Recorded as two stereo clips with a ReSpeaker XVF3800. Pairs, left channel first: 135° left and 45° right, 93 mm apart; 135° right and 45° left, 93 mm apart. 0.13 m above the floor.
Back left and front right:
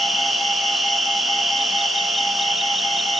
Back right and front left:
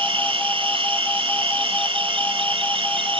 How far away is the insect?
About 1.2 m.